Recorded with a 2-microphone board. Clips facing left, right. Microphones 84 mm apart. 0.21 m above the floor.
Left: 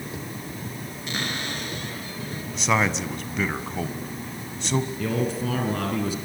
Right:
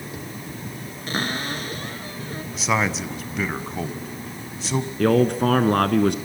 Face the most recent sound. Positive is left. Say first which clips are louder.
# right 8 dB
turn(degrees=-60)  # may be behind; listen again after turning